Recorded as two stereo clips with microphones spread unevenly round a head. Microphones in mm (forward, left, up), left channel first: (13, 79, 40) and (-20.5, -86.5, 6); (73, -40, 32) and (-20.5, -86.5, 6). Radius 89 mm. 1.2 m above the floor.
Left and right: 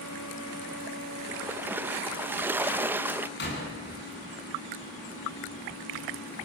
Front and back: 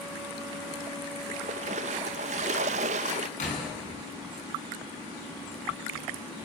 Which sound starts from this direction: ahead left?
A door slam, at 3.4 s.